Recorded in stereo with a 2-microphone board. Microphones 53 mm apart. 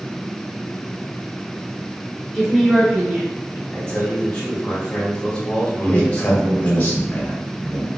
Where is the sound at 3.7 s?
30° left (ahead or behind), 1.5 m.